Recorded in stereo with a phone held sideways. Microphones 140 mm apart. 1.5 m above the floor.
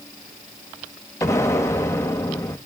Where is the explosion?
20° left (ahead or behind), 0.9 m.